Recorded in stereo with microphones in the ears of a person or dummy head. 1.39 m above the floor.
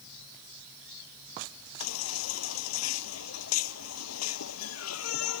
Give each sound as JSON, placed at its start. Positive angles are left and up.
{"t": 1.8, "sound": "a baby crying", "side_deg": 80}